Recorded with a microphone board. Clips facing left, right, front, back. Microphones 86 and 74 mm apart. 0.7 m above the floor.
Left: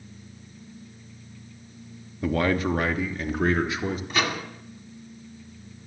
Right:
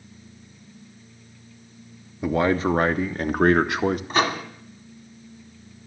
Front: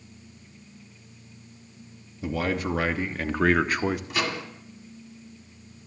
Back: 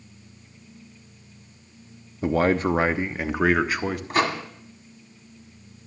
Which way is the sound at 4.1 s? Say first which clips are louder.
Right 4 dB, back 6 dB; 140° right.